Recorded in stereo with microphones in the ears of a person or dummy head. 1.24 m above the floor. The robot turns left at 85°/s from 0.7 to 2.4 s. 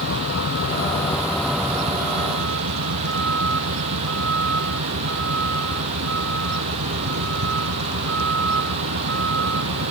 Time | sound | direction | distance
0.0 | a vehicle | 65° left (ahead or behind) | ?